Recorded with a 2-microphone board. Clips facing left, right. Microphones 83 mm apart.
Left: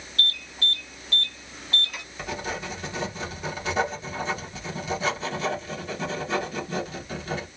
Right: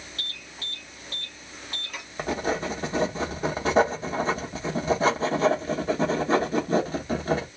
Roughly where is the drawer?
I don't hear a drawer.